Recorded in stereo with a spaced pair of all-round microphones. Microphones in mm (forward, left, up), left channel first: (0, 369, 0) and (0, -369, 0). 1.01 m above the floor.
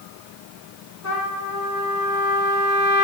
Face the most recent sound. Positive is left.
turn(degrees=25)  # may be behind; listen again after turning